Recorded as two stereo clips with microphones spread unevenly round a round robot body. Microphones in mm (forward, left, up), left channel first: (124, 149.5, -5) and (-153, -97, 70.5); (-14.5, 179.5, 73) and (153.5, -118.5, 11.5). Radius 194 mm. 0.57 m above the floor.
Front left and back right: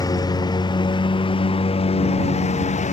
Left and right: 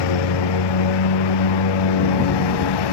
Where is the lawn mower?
125° left; by 2.9 s 115° left.